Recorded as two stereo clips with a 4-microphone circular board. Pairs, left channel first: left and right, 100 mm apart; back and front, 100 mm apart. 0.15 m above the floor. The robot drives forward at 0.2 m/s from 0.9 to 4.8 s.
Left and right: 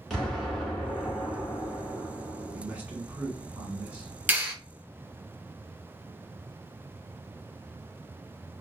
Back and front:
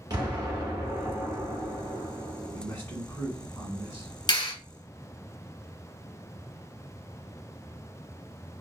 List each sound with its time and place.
0.1 s an explosion: 5° left, 1.4 m
2.5 s a man speaking: 135° right, 1.5 m; by 4.1 s 150° right, 1.6 m
4.3 s a clap: 160° right, 1.7 m